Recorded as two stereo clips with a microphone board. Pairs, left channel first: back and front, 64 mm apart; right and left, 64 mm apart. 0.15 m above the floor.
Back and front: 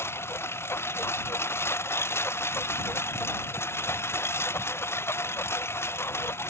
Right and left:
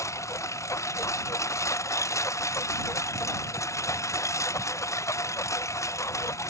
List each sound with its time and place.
0.0 s a lawn mower: 130° right